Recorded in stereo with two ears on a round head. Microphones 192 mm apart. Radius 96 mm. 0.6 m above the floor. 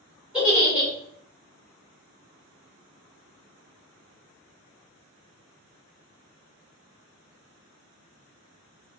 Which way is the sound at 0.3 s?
5° right (ahead or behind).